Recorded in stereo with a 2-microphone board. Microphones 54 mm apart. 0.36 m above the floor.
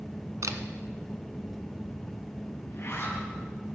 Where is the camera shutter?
80° right, 1.4 m.